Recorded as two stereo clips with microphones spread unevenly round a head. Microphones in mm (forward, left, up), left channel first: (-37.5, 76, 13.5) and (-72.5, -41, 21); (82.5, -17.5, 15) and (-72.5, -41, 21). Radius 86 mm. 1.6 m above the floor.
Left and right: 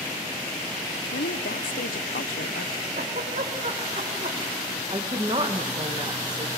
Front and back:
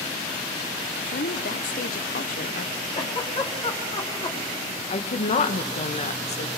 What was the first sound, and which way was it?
A woman speaking, 50° left.